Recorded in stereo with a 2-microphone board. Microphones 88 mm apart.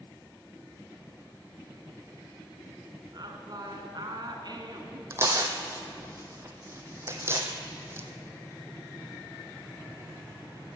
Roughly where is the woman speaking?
Right.